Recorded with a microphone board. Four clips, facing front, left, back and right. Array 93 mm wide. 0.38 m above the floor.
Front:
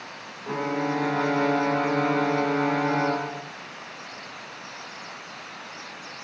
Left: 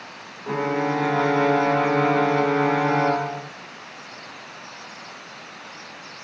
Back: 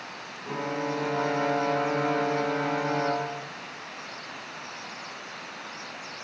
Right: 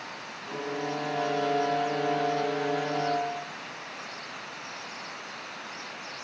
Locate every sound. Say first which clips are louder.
0.5 s a violin: left 10 dB, front 4 dB; 75° left, 1.0 m